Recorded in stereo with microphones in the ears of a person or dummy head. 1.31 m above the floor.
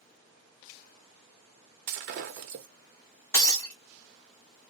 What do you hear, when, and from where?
1.9 s breaking glass: 50° right (ahead or behind), 0.7 m
3.3 s breaking glass: 15° left (ahead or behind), 0.7 m